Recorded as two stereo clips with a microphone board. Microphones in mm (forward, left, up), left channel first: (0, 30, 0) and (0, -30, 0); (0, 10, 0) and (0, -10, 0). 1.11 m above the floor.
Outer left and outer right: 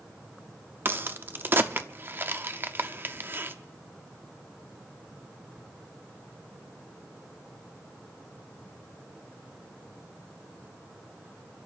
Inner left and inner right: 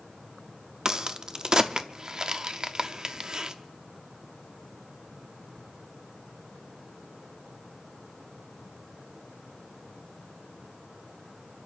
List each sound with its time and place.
0.8 s a crack: 35° right (ahead or behind), 0.8 m